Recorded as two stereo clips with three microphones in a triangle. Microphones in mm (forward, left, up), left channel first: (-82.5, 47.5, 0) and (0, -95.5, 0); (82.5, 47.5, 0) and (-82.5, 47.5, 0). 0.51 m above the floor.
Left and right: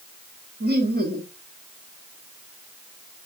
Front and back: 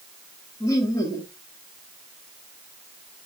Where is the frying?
No frying in this recording.